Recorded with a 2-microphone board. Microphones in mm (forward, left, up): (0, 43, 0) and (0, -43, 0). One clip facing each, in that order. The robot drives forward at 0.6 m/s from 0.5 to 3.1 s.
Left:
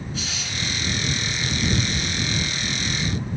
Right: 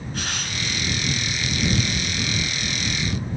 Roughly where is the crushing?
Right.